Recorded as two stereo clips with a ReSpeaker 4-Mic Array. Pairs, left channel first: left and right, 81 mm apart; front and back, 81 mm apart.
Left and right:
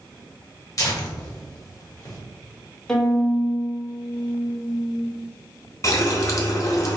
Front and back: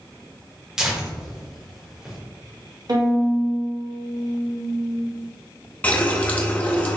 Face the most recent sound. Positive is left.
turn(degrees=65)